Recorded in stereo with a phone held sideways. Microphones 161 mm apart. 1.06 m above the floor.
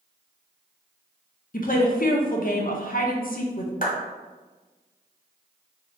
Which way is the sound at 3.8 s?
60° left (ahead or behind).